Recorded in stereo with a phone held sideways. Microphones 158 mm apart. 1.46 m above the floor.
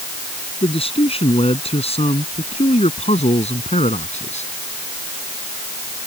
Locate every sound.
0.6 s a man speaking: 35° left (ahead or behind); by 4.5 s 40° left (ahead or behind)